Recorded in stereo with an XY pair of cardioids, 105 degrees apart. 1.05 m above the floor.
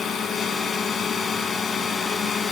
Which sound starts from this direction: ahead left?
A drone, at 0.0 s.